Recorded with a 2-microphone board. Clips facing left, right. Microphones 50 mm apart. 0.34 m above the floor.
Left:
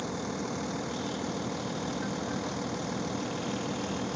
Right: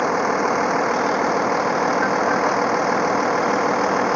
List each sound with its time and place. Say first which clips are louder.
0.0 s a vehicle: right 16 dB; 60° right (ahead or behind)